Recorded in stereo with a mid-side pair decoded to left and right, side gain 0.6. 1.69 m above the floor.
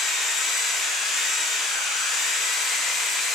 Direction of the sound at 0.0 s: 50° left.